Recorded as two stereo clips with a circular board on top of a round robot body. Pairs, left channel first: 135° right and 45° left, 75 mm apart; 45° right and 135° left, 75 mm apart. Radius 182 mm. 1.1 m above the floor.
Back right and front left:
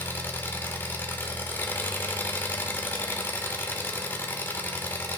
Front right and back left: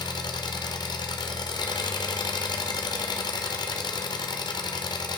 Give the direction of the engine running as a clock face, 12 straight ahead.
2 o'clock.